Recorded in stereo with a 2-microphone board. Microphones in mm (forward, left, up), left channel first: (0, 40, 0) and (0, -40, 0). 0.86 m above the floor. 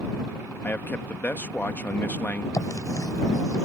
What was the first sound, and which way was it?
A man speaking, 25° left (ahead or behind).